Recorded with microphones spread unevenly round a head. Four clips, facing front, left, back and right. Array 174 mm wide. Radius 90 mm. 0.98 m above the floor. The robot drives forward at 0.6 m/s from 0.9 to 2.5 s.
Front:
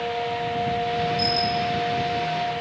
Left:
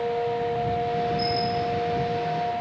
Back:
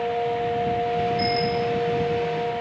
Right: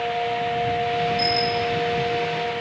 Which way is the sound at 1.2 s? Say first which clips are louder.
Right 2 dB, back 1 dB; 145° right.